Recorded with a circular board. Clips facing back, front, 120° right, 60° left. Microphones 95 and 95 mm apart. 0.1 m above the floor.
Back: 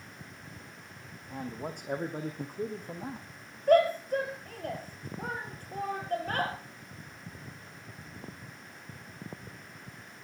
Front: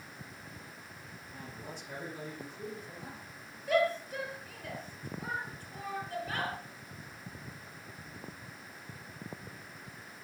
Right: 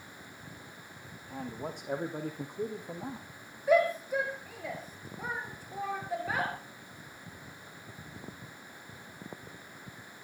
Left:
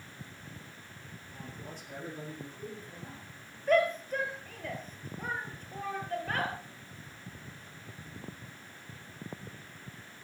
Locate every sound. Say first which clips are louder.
1.3 s a man speaking: back 9 dB, right 8 dB; 150° right, 5.5 m; by 3.3 s 135° right, 4 m
3.7 s a shout: back 7 dB, right 1 dB; 160° left, 2.5 m